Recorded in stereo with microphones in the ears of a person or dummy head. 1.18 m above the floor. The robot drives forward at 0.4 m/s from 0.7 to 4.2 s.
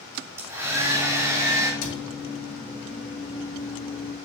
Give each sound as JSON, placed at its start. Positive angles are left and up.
{"t": 0.1, "sound": "a hair dryer", "side_deg": -15, "distance_m": 3.0}
{"t": 1.8, "sound": "a cupboard door", "side_deg": 75, "distance_m": 3.0}